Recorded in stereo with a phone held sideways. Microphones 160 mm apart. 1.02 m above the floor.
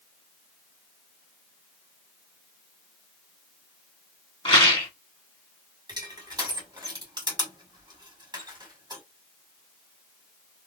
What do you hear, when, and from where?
4.5 s a rattle: 30° left (ahead or behind), 1.7 m
5.9 s crushing: 25° right (ahead or behind), 1.9 m